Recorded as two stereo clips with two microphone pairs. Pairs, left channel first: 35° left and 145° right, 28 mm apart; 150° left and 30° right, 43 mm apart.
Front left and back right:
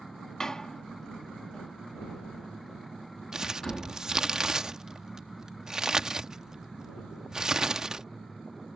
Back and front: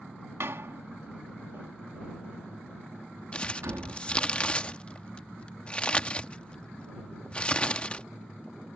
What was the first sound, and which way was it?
A door slam, 30° right.